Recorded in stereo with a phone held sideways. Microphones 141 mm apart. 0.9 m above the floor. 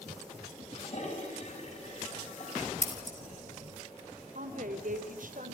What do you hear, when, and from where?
0.7 s a toilet flushing: 55° left (ahead or behind), 6 m
2.8 s scissors: 55° left (ahead or behind), 4 m
4.3 s a woman speaking: 70° right (ahead or behind), 3 m